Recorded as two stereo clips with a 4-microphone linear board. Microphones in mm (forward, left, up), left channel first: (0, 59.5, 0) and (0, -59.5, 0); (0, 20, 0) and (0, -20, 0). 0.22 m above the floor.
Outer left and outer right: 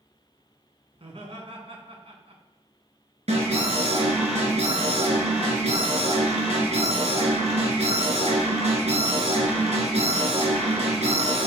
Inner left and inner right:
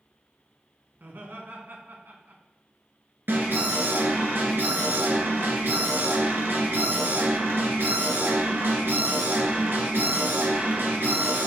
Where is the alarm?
70° right (ahead or behind), 2.5 m.